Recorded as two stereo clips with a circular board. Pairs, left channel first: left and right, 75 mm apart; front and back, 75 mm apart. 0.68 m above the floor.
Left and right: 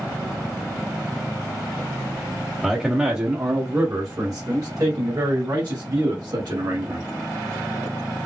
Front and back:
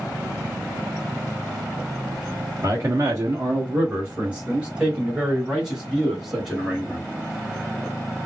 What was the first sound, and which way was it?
A man speaking, 170° right.